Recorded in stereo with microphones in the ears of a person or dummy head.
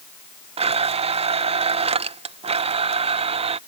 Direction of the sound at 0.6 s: 30° right (ahead or behind).